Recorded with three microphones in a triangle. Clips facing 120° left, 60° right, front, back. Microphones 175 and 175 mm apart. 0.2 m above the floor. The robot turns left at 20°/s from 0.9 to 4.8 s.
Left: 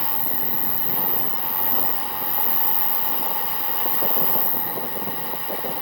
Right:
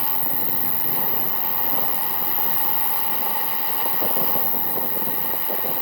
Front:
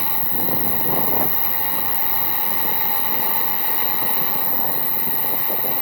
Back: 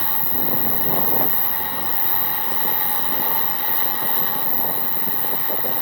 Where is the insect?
10° right; by 5.8 s 90° right.